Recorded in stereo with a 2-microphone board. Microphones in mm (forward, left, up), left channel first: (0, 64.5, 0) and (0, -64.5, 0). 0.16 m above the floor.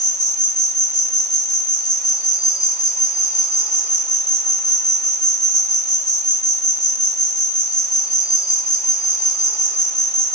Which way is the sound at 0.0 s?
30° left (ahead or behind).